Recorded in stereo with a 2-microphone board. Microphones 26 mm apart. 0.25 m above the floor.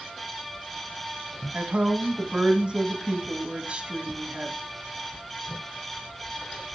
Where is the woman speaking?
45° right (ahead or behind), 1.4 m.